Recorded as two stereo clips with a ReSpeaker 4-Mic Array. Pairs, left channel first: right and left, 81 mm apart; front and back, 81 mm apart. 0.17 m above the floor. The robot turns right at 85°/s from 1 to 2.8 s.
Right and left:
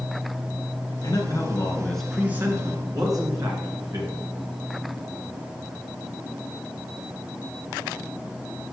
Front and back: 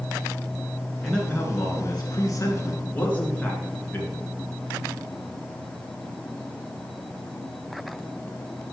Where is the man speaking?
85° right, 2.5 m; by 4.2 s 65° left, 2.5 m.